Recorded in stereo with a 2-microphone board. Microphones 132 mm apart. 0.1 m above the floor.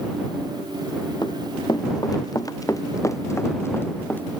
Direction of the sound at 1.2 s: 35° left (ahead or behind).